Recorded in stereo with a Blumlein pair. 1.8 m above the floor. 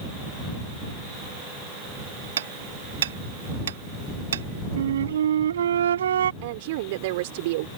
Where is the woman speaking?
50° right.